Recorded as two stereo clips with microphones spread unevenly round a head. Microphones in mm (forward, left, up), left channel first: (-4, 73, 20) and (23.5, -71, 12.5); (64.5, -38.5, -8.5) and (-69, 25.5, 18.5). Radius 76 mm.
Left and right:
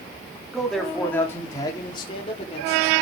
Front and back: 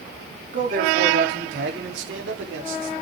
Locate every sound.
0.5 s a man speaking: 165° right, 3.5 m; by 2.9 s 150° left, 5 m